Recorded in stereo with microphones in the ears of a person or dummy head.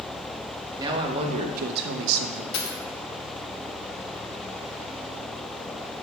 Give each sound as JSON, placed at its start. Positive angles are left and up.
{"t": 0.8, "sound": "a man speaking", "side_deg": -20, "distance_m": 0.9}
{"t": 2.5, "sound": "a dropped coin", "side_deg": 65, "distance_m": 1.2}